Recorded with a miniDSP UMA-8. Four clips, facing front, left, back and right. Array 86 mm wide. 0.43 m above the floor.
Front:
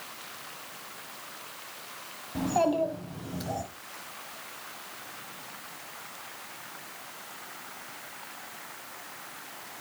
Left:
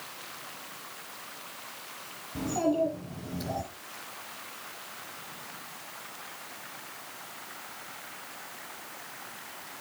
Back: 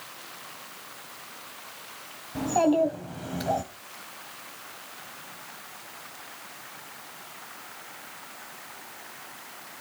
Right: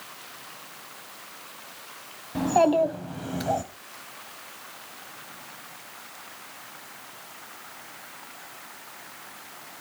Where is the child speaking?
90° right, 2.5 m; by 3.6 s 130° right, 2.0 m.